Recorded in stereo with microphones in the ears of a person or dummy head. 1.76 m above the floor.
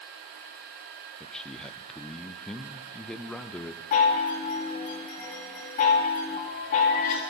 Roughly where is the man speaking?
Centre.